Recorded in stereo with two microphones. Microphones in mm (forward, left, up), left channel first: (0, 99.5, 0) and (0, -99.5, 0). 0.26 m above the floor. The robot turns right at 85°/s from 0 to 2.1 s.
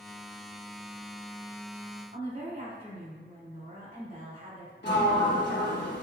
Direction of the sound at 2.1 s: 45° right (ahead or behind).